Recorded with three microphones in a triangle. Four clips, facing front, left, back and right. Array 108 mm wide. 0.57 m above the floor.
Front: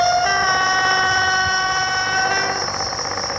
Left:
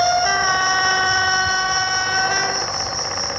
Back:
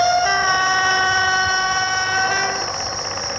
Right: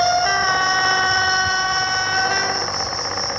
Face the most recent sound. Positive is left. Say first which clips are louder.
# even, even
turn(degrees=-85)